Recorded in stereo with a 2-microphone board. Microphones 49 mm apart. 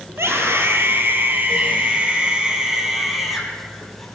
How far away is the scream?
About 4.5 m.